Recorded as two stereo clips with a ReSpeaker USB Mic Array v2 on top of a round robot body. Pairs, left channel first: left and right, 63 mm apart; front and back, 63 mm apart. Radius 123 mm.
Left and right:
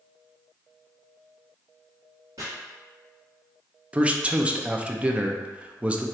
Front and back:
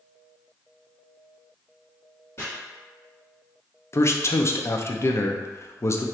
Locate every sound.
2.4 s chopping: 50° right, 1.3 m
3.9 s a man speaking: 25° right, 0.6 m